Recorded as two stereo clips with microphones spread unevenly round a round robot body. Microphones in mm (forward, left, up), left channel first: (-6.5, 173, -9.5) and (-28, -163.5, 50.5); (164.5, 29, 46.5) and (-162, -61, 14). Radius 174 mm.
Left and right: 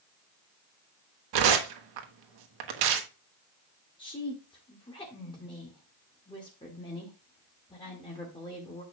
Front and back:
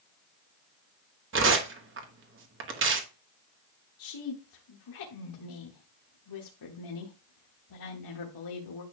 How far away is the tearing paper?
About 1.4 m.